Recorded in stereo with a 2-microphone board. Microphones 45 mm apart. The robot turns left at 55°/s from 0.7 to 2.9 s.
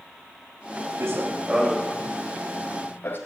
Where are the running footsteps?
70° right (ahead or behind), 1.8 m; by 3.2 s 55° left (ahead or behind), 2.5 m.